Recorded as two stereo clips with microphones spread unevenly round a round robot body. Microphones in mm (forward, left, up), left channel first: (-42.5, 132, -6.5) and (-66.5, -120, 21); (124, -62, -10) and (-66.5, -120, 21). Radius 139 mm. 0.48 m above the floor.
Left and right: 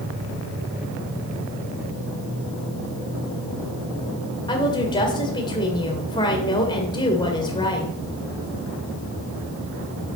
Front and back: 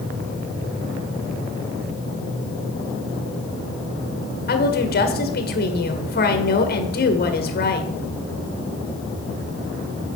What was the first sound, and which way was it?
A woman speaking, 15° left.